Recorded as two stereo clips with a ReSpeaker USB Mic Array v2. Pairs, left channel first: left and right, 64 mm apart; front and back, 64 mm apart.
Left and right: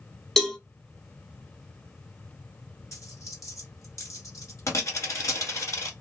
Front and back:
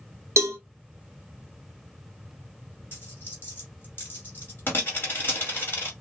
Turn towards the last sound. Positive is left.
turn(degrees=55)